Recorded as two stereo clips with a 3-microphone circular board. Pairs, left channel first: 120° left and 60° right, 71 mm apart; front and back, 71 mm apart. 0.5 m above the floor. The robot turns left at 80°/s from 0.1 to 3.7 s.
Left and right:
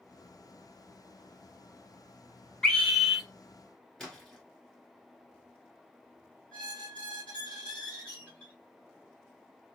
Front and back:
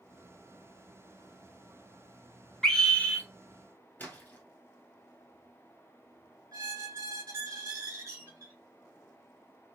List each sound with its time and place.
2.6 s a scream: 65° left, 1.0 m; by 3.2 s 15° left, 1.0 m
4.0 s a splash: 40° left, 1.5 m
6.5 s a squeak: 165° right, 2.0 m